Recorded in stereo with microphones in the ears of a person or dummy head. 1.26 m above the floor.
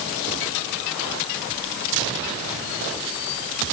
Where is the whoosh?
I don't hear a whoosh.